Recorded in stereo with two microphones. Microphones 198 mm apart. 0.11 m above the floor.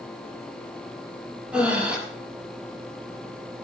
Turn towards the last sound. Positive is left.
turn(degrees=-5)  # may be behind; listen again after turning